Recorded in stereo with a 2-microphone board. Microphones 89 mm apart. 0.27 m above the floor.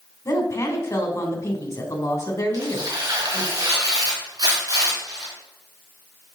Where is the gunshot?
I don't hear a gunshot.